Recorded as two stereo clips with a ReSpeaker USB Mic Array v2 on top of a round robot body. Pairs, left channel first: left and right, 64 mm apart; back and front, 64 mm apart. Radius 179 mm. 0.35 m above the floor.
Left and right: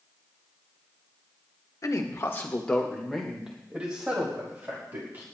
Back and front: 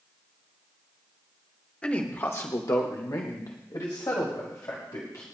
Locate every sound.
1.8 s a man speaking: 110° left, 1.6 m; by 5.2 s 145° right, 4 m